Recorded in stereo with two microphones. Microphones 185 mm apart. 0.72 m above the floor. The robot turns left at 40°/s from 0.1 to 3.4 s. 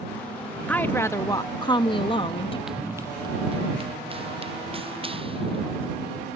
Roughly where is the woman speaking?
Centre.